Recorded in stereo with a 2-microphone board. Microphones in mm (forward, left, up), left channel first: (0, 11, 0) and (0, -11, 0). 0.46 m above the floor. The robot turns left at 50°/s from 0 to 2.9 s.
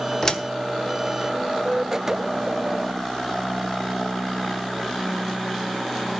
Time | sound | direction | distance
0.2 | a door slam | 25° left (ahead or behind) | 1.2 m